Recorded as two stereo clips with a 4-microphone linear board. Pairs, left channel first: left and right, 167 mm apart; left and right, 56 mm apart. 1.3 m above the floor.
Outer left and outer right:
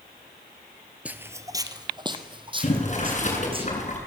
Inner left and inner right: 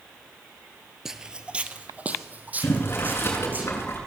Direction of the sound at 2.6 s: 45° left (ahead or behind).